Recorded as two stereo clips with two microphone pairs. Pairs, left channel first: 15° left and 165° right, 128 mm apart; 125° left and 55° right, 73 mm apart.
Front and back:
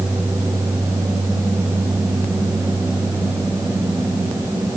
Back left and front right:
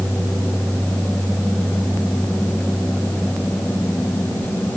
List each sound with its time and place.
Only background noise.